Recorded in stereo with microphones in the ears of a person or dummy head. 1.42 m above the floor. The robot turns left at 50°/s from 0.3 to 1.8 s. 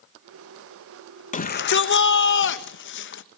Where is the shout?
35° left (ahead or behind), 1.5 m; by 3.2 s 60° left (ahead or behind), 1.5 m.